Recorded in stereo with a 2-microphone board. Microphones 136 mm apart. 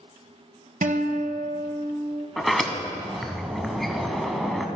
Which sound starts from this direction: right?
A guitar, at 0.8 s.